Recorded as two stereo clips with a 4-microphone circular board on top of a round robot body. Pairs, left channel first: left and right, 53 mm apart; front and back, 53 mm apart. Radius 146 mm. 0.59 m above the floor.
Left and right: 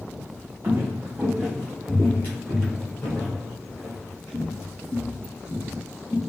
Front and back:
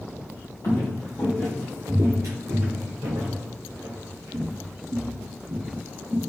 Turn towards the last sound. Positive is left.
turn(degrees=145)